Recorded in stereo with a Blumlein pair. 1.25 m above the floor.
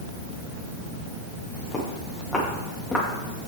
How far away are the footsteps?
About 6.5 m.